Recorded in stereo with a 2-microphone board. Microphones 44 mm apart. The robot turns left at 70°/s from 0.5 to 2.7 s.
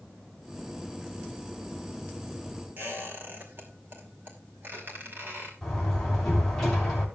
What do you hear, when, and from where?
2.8 s a squeak: 45° right (ahead or behind), 6 m
5.6 s a door slam: 10° left (ahead or behind), 6 m